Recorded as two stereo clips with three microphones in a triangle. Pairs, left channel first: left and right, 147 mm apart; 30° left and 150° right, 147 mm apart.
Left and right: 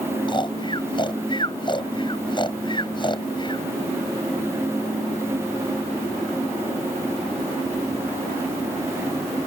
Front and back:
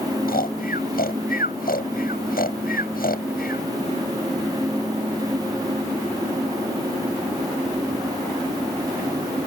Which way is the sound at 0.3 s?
35° left.